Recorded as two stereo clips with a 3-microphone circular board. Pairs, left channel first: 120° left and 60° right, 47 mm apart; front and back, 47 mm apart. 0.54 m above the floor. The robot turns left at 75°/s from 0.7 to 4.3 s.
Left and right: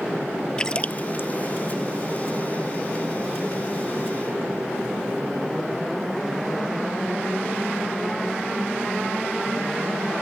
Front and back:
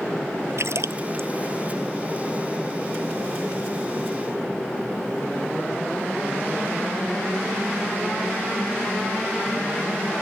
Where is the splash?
165° right; by 1.3 s 150° left.